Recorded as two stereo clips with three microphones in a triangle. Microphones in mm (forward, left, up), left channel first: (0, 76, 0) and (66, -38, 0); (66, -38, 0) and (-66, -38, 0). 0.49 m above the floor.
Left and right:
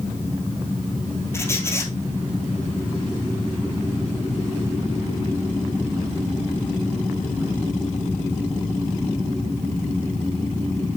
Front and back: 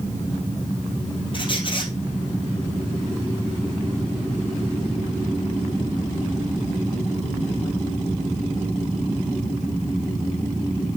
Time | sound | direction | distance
1.3 | a squeak | 50° left | 1.7 m